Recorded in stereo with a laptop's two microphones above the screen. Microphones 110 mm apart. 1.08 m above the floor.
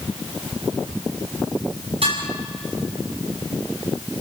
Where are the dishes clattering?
60° right (ahead or behind), 7 m.